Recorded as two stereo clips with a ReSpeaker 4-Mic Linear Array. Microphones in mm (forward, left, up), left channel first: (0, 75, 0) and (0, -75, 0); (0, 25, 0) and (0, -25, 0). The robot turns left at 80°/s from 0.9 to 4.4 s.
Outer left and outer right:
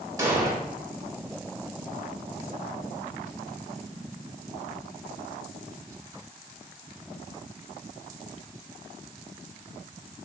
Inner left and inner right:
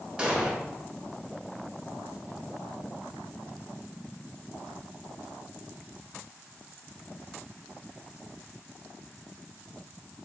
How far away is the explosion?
About 0.9 m.